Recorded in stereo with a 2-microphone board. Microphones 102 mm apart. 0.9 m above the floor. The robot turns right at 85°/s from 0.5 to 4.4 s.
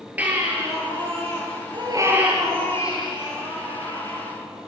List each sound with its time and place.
0.2 s a baby crying: 165° right, 9.5 m; by 4.7 s 170° left, 9.5 m